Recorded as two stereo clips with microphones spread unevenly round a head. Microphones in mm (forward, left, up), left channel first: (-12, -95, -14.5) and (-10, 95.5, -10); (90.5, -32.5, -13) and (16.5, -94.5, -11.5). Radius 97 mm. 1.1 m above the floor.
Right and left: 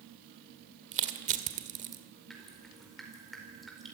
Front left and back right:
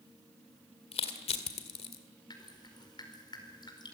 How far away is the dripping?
About 4.5 m.